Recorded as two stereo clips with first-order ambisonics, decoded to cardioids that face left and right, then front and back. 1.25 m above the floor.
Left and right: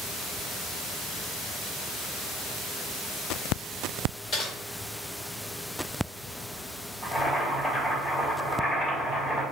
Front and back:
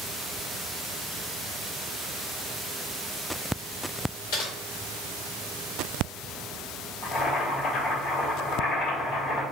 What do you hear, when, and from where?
4.3 s typing on a keyboard: 30° left, 1.6 m
7.0 s boiling: 25° left, 1.8 m